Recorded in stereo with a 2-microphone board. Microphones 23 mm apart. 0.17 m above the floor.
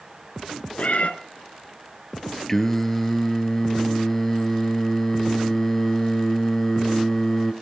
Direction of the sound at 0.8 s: 60° left (ahead or behind).